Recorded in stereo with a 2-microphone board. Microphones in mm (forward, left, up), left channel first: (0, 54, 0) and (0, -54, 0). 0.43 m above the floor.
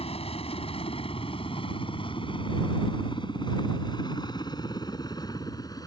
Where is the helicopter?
60° left (ahead or behind); by 5.9 s 35° left (ahead or behind).